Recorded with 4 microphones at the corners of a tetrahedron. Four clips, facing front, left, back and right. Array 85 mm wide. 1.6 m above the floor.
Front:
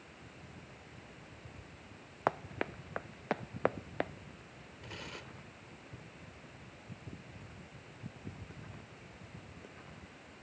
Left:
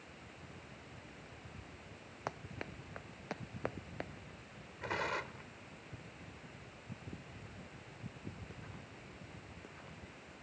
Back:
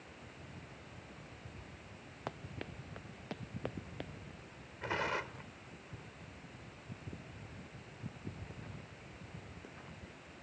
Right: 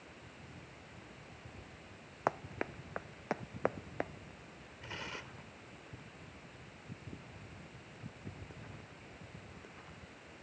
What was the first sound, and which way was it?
Running footsteps, 35° right.